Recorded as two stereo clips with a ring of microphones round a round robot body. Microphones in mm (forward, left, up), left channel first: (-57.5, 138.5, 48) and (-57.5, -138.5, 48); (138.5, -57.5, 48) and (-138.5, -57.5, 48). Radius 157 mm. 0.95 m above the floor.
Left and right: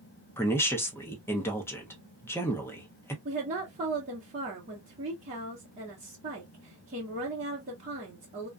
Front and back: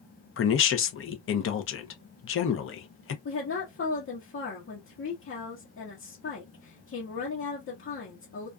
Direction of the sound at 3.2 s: 30° right.